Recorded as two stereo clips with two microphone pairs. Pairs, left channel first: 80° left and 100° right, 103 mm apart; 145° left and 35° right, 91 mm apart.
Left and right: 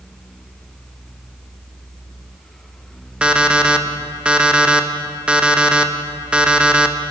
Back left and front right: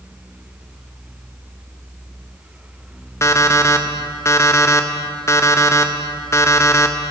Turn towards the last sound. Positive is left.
turn(degrees=-175)